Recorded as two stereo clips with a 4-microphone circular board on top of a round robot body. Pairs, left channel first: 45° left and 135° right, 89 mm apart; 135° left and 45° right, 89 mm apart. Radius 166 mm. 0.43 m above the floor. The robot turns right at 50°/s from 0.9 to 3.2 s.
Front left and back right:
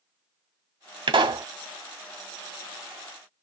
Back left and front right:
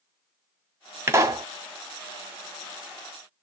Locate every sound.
1.1 s a pop: 110° right, 0.8 m; by 1.5 s 90° right, 0.8 m